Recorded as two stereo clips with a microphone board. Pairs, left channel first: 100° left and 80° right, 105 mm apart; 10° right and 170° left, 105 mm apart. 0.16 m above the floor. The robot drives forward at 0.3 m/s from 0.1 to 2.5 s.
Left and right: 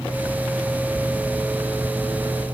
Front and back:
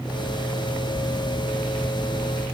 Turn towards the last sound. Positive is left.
No sound to turn to.